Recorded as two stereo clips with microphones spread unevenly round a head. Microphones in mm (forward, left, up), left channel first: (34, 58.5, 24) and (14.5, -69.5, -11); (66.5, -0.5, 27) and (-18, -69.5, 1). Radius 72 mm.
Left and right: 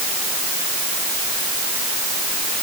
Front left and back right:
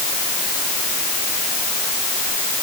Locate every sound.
Only background noise.